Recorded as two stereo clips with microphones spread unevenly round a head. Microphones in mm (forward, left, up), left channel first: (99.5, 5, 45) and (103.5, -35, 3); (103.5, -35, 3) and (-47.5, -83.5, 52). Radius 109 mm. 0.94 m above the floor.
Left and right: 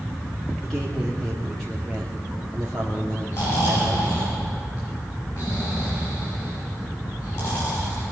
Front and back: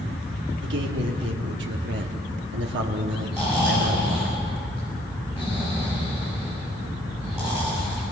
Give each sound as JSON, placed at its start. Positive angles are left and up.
{"t": 0.6, "sound": "a man speaking", "azimuth_deg": -160, "distance_m": 2.5}
{"t": 3.3, "sound": "snoring", "azimuth_deg": 115, "distance_m": 7.0}